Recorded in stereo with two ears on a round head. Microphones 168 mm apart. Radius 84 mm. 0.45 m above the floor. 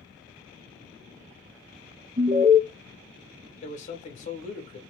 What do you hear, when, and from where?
2.2 s an alarm: 40° right (ahead or behind), 1.2 m
3.6 s a man speaking: 40° left (ahead or behind), 1.6 m